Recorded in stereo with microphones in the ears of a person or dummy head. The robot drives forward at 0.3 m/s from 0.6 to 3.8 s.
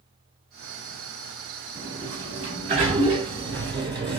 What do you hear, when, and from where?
1.8 s a sliding door: 20° right (ahead or behind), 1.1 m